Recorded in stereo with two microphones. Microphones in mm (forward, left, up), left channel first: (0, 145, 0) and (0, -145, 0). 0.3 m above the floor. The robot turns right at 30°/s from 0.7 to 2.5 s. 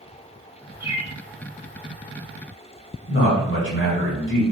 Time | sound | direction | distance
0.8 | a bird | 5° right (ahead or behind) | 1.5 m
3.1 | a man speaking | 40° left (ahead or behind) | 1.7 m